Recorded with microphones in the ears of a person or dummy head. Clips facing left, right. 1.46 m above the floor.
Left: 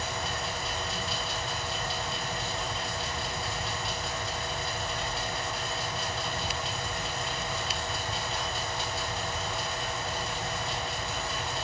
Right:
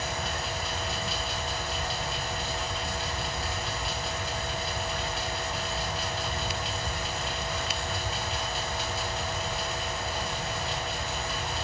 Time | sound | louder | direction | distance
0.0 | a fan | right 1 dB | 5° right (ahead or behind) | 1.7 m